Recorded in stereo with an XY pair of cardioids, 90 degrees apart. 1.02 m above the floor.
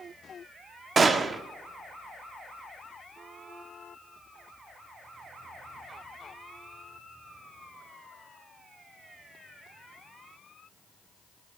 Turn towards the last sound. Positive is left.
turn(degrees=-40)